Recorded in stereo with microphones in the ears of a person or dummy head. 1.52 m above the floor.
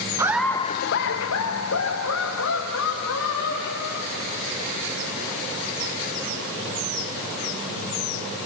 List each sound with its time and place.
0.2 s laughter: 20° right (ahead or behind), 0.6 m; by 4.4 s 75° left (ahead or behind), 4 m